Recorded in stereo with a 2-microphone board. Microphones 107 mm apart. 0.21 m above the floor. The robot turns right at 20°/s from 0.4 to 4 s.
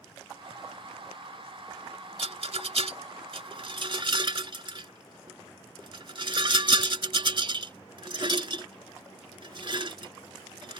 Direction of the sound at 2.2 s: 75° right (ahead or behind).